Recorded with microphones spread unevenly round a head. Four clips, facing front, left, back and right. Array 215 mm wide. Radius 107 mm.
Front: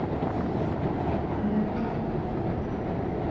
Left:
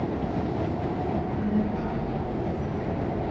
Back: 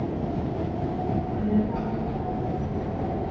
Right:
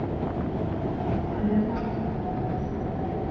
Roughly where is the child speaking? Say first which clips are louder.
Right 3 dB, back 2 dB; behind right.